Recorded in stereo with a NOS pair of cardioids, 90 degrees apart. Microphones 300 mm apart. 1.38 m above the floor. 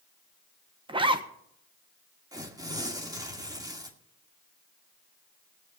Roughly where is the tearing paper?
Ahead.